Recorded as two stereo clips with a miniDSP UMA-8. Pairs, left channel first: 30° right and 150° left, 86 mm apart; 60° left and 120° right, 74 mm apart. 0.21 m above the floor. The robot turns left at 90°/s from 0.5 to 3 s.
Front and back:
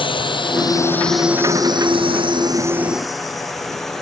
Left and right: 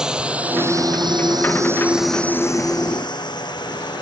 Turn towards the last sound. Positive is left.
turn(degrees=55)